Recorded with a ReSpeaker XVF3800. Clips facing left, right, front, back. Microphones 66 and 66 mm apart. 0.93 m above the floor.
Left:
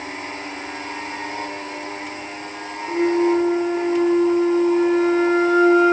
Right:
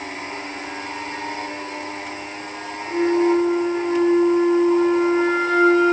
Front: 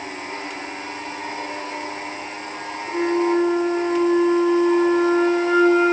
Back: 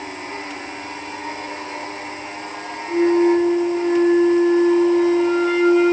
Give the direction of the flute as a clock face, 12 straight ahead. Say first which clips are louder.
Even, back 5 dB; 2 o'clock.